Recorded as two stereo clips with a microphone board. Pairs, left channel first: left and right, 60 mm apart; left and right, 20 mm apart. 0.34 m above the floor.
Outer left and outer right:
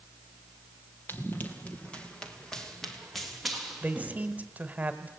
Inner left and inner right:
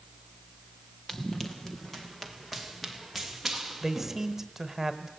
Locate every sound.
1.1 s running footsteps: 35° left (ahead or behind), 2.5 m; by 4.4 s 5° right (ahead or behind), 4 m
3.8 s a man speaking: 25° right (ahead or behind), 1.4 m